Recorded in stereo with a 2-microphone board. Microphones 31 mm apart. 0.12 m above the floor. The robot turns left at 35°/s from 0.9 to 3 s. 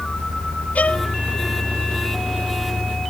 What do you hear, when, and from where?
0.8 s a violin: 55° left (ahead or behind); by 1.1 s 50° left (ahead or behind)